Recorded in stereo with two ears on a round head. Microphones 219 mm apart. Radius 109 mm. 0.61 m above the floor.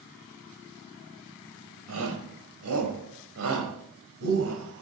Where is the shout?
75° right (ahead or behind), 3.5 m; by 4.8 s 55° right (ahead or behind), 4 m.